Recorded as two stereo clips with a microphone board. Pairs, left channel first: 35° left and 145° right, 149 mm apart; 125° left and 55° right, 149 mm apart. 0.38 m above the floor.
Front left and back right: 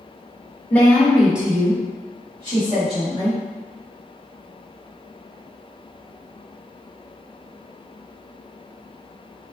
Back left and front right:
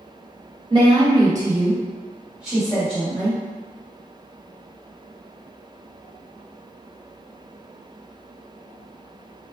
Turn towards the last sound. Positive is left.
turn(degrees=-160)